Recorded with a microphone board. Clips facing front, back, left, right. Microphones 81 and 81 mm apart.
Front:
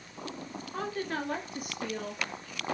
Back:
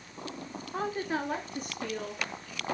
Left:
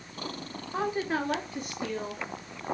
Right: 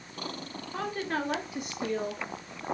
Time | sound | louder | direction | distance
0.7 | a woman speaking | back 2 dB, left 3 dB | 135° left | 1.2 m